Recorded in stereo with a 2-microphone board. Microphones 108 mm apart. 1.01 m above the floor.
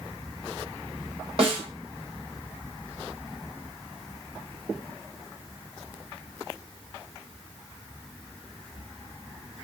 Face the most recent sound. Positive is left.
turn(degrees=-50)  # may be behind; listen again after turning